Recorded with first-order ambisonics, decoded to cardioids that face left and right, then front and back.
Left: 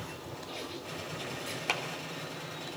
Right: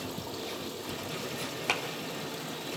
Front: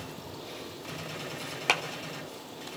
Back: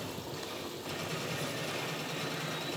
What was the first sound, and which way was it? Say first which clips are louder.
Running water: right 4 dB, back 2 dB; 105° right.